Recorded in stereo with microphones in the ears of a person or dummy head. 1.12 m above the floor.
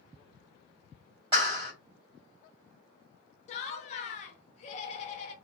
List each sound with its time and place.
1.3 s a clap: 25° right (ahead or behind), 1.5 m
3.5 s laughter: 40° left (ahead or behind), 0.6 m